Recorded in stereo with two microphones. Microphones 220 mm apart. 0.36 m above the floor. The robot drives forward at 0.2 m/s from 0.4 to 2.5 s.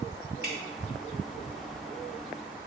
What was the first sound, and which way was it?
Dripping, 50° right (ahead or behind).